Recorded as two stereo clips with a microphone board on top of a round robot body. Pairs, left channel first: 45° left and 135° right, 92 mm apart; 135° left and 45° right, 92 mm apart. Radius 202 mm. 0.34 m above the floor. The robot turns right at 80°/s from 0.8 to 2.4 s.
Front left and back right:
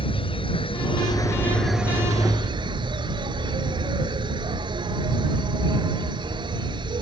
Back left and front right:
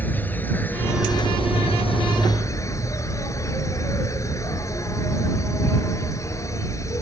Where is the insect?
65° left; by 7.0 s 170° right.